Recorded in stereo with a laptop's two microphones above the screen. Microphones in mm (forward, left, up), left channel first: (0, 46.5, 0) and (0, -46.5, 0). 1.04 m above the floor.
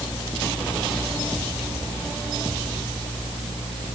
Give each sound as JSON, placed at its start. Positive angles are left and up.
{"t": 0.0, "sound": "a fan", "side_deg": 85}